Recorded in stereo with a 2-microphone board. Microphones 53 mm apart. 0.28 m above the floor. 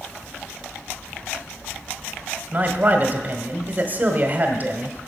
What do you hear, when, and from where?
2.5 s a man speaking: 40° right (ahead or behind), 1.1 m